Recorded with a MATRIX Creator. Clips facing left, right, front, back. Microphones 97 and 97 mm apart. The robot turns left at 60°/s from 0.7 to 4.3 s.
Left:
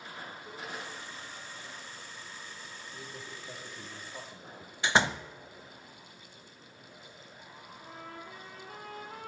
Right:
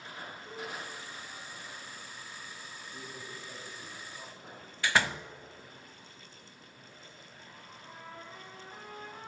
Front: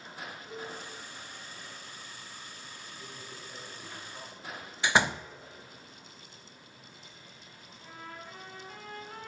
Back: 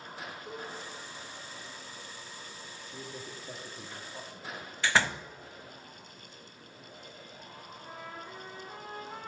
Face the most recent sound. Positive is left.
turn(degrees=110)